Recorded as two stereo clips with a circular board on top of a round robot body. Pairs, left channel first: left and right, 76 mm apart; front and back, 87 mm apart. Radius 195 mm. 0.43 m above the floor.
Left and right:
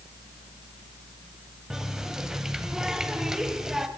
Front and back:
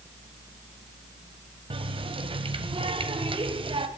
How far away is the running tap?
About 2.5 m.